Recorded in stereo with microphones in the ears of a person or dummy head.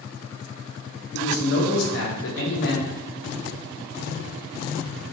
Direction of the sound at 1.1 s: 75° left (ahead or behind).